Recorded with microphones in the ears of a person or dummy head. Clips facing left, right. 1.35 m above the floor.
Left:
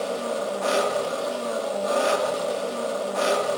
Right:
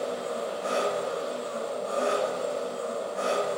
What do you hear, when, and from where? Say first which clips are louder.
0.0 s an engine running: left 4 dB; 75° left (ahead or behind), 1.1 m